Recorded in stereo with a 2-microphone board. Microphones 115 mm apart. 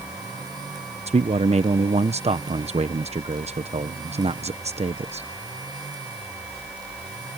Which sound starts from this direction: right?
A man speaking, at 1.1 s.